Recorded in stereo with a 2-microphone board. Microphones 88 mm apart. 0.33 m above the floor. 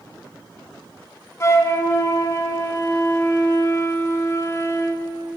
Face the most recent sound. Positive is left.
turn(degrees=35)  # may be behind; listen again after turning